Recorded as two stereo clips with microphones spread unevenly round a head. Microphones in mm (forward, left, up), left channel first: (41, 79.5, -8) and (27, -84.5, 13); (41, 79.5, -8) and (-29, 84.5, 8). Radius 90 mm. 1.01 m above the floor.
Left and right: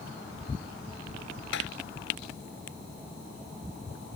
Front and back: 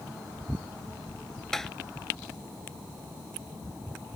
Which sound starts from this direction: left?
Tapping, at 1.5 s.